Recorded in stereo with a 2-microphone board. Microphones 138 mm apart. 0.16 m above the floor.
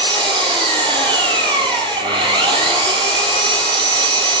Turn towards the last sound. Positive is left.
turn(degrees=-35)  # may be behind; listen again after turning